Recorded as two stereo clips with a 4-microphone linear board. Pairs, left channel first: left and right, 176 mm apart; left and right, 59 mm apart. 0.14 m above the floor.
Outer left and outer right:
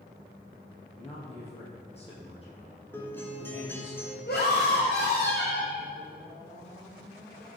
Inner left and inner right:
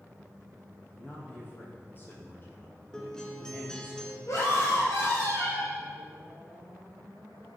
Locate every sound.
1.0 s a man speaking: 35° left (ahead or behind), 4.5 m
2.9 s a guitar: 10° left (ahead or behind), 1.6 m
4.3 s a scream: 65° left (ahead or behind), 2.5 m